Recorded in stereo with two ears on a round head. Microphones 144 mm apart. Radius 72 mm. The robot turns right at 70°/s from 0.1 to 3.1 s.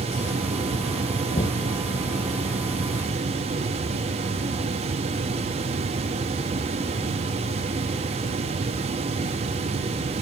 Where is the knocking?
45° left (ahead or behind); by 1.7 s 25° left (ahead or behind).